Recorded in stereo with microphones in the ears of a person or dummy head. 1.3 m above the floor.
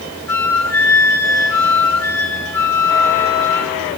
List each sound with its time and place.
0.3 s a flute: 15° left (ahead or behind), 1.0 m